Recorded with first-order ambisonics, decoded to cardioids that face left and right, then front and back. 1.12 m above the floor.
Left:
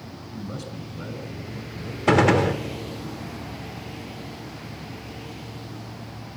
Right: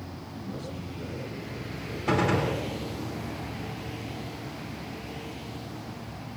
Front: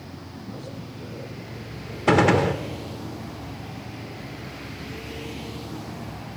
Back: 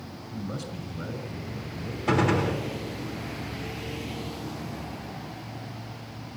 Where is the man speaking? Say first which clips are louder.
Left 3 dB, back 3 dB; 135° left, 5 m.